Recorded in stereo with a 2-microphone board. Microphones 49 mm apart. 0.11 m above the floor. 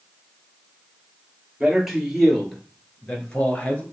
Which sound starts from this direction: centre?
A man speaking, at 1.6 s.